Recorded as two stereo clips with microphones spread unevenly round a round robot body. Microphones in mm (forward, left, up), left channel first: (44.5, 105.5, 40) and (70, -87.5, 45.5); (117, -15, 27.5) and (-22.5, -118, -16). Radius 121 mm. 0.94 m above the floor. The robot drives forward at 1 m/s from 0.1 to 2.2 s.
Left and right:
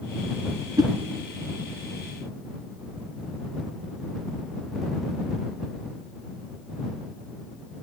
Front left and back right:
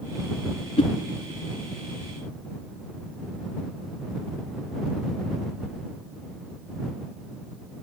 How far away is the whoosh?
About 2 m.